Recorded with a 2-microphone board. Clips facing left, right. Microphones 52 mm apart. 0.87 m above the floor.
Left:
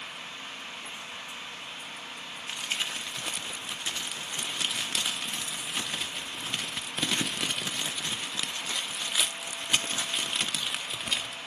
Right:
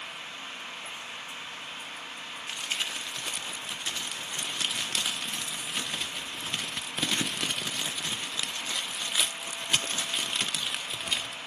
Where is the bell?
I don't hear a bell.